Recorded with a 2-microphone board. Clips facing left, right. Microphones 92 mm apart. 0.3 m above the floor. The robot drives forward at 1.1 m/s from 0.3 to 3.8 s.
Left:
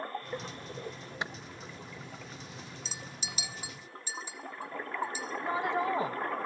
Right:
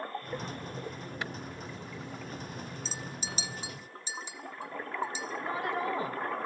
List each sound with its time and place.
1.2 s a clap: 20° left (ahead or behind), 0.8 m
2.9 s a clink: 35° right (ahead or behind), 0.6 m; by 5.3 s 20° right (ahead or behind), 1.0 m
5.4 s a woman speaking: 20° left (ahead or behind), 1.6 m